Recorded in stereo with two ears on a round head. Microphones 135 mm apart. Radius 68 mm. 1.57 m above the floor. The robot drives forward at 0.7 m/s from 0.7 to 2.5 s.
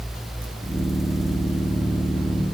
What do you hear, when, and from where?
Only background noise.